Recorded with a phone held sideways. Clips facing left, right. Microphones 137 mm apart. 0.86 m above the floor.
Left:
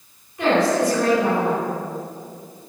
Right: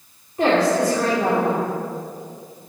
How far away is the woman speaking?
About 3 m.